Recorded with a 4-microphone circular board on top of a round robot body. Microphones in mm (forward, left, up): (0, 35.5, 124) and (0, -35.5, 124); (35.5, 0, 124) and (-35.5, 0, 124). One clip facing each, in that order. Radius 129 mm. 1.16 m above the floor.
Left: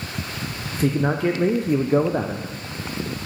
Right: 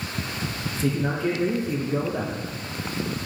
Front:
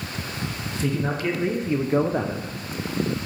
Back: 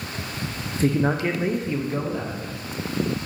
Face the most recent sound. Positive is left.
turn(degrees=35)